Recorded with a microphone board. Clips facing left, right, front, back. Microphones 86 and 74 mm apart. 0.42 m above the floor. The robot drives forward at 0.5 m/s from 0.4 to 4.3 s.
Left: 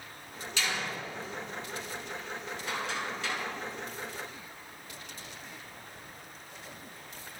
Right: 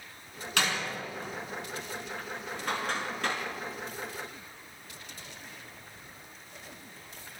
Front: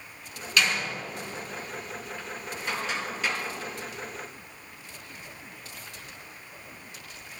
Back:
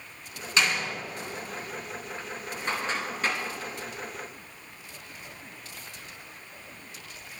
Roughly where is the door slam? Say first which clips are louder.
Right 3 dB, even; behind right.